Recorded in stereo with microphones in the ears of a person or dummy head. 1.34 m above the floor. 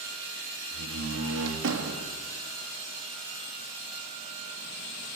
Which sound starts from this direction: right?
A door slam, at 0.7 s.